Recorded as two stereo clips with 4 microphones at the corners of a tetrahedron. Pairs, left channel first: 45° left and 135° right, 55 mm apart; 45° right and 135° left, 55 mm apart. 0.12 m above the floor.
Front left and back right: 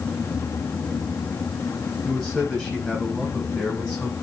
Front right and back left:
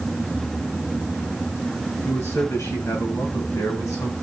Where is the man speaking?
45° right, 6.5 m; by 4.1 s 35° right, 5.5 m.